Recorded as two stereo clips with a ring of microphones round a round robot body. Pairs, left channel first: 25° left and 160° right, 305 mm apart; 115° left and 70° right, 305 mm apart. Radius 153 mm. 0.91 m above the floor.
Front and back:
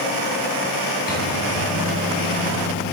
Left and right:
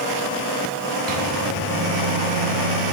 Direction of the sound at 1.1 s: 40° right.